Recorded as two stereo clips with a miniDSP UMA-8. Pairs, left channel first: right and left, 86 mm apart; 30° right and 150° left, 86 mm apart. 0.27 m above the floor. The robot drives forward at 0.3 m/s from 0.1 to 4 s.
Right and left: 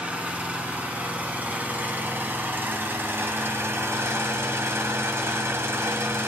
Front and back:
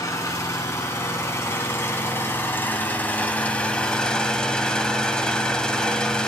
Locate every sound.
0.0 s an engine running: 20° left, 1.9 m; by 6.3 s 45° left, 1.0 m